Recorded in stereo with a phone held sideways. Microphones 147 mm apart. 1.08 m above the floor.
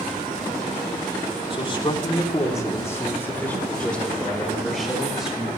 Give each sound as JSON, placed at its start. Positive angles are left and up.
{"t": 1.5, "sound": "a man speaking", "side_deg": 35, "distance_m": 2.5}